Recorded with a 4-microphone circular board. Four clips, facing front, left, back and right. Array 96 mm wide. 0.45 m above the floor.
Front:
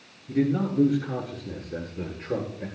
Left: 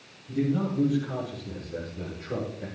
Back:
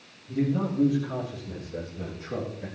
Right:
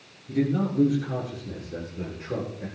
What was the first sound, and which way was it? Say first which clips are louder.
A man speaking: right 2 dB, front 2 dB; 20° right.